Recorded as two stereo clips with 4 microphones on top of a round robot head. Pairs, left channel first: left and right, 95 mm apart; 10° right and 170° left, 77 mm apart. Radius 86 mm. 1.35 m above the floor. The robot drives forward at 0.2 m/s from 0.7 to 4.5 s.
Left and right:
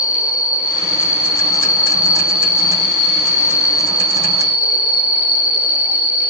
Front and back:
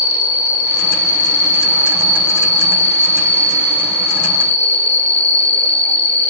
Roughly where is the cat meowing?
I don't hear a cat meowing.